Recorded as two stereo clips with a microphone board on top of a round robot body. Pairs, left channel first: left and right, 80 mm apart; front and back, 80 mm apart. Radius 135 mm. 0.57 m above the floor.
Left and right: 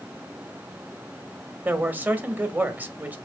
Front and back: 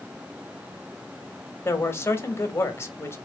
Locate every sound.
1.6 s a man speaking: 35° right, 1.3 m